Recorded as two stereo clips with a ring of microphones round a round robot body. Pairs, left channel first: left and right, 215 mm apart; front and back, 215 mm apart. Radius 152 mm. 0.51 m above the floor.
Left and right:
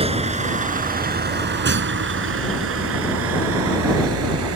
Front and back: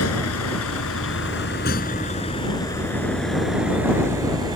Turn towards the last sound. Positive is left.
turn(degrees=-105)